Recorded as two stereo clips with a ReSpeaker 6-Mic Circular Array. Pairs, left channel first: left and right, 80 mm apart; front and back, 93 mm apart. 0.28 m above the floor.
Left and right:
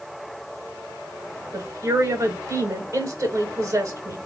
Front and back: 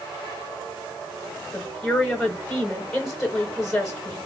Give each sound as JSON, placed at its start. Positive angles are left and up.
{"t": 1.5, "sound": "a woman speaking", "azimuth_deg": -85, "distance_m": 1.0}